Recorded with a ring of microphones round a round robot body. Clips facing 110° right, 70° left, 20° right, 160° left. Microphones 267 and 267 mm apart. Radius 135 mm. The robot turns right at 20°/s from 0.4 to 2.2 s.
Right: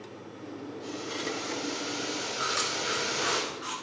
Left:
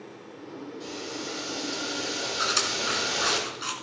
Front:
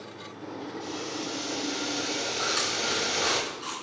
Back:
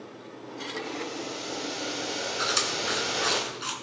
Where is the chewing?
100° left, 3 m.